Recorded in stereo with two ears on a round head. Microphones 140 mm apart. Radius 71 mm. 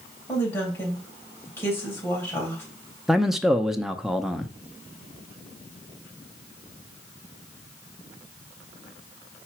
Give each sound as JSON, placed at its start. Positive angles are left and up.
{"t": 0.3, "sound": "a woman speaking", "side_deg": 15, "distance_m": 3.0}
{"t": 3.1, "sound": "a man speaking", "side_deg": -5, "distance_m": 0.6}